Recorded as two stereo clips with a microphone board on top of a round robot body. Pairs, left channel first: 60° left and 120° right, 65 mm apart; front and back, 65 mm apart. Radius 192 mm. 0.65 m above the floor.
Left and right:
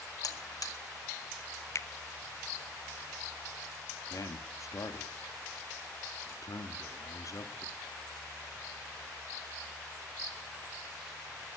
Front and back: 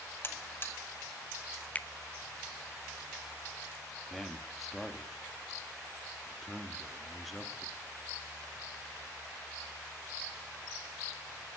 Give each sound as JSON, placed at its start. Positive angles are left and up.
{"t": 0.2, "sound": "a buzzer", "azimuth_deg": 50, "distance_m": 2.5}
{"t": 1.8, "sound": "a finger snap", "azimuth_deg": 60, "distance_m": 1.1}
{"t": 4.1, "sound": "a man speaking", "azimuth_deg": 90, "distance_m": 1.9}